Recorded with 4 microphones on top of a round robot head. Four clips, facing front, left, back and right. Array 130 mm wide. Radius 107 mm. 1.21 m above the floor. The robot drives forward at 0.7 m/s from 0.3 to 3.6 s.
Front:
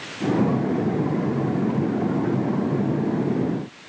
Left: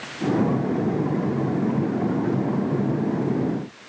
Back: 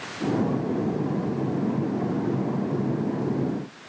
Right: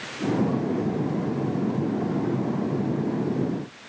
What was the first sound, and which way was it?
Only background noise.